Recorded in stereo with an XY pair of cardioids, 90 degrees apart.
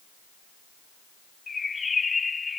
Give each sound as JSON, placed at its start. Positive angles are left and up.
{"t": 1.5, "sound": "a bird", "azimuth_deg": 35}